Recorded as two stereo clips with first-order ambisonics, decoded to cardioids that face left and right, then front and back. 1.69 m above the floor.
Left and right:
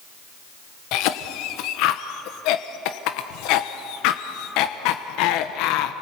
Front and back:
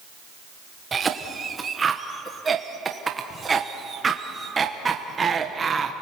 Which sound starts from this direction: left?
A cough, at 0.9 s.